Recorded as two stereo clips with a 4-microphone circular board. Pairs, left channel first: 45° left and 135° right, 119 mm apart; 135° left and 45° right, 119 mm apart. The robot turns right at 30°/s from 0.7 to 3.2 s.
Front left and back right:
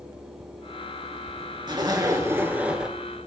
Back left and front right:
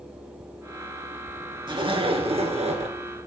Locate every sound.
1.7 s a zipper: 90° right, 2.5 m; by 3.0 s 50° right, 2.5 m